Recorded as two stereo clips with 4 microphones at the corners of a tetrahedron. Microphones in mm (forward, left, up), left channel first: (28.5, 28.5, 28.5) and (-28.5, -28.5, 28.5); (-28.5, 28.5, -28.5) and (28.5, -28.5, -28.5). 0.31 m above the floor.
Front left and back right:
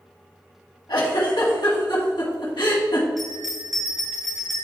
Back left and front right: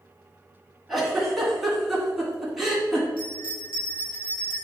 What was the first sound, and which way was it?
A giggle, 45° left.